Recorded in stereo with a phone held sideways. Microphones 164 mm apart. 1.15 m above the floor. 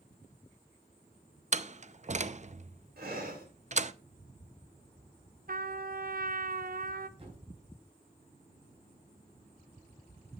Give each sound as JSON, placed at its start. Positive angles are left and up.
{"t": 1.5, "sound": "a door slam", "side_deg": -45, "distance_m": 0.5}
{"t": 3.0, "sound": "breathing", "side_deg": -70, "distance_m": 3.0}
{"t": 5.5, "sound": "a trumpet", "side_deg": -60, "distance_m": 0.7}
{"t": 7.2, "sound": "a thud", "side_deg": -35, "distance_m": 4.5}